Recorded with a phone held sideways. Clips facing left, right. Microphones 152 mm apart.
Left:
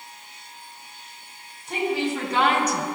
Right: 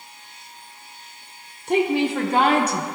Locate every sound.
1.7 s a woman speaking: 65° right (ahead or behind), 0.9 m; by 2.9 s 20° right (ahead or behind), 0.7 m